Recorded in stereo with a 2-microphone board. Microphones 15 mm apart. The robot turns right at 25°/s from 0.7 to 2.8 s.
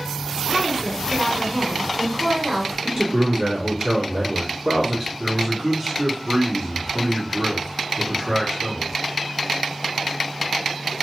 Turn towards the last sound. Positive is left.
turn(degrees=-20)  # may be behind; listen again after turning